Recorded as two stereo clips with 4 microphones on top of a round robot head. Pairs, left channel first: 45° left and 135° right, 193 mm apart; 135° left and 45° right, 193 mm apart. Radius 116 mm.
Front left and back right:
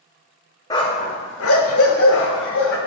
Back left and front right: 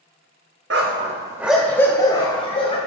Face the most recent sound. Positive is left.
turn(degrees=75)